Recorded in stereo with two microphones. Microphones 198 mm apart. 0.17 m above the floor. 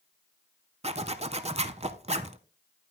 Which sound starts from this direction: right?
A zipper, at 0.8 s.